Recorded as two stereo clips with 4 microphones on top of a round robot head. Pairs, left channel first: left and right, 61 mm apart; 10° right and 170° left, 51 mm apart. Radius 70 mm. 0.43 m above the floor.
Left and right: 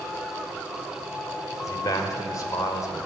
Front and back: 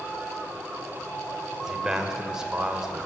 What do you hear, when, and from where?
1.6 s a man speaking: 95° left, 2 m